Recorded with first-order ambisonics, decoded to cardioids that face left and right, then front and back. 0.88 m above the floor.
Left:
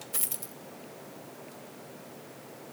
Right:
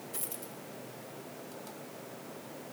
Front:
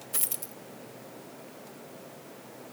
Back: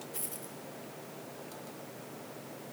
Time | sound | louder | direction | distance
0.1 | a dropped coin | left 6 dB, front 5 dB | 30° left | 1.2 m